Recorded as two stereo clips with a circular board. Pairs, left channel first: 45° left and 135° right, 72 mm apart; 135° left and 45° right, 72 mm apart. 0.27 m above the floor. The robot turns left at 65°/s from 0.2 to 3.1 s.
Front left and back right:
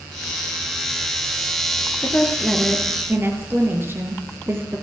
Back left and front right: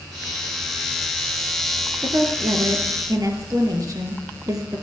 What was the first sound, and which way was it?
A woman speaking, 10° right.